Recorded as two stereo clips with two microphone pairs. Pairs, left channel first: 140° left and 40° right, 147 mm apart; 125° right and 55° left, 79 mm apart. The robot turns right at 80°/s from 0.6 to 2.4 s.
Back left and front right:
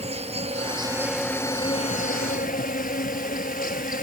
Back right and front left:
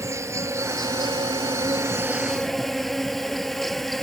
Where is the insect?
5° left; by 4.0 s 150° left.